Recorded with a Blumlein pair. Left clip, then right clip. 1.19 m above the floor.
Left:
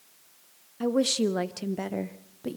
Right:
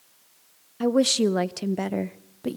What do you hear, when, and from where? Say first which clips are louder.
0.8 s a woman speaking: right 4 dB; 15° right, 0.6 m